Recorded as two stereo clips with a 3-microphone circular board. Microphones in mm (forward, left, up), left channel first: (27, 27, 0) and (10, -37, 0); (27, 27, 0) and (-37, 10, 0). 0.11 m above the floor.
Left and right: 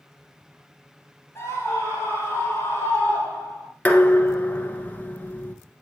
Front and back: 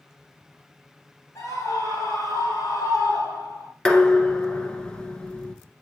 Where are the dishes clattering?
65° left, 1.0 m.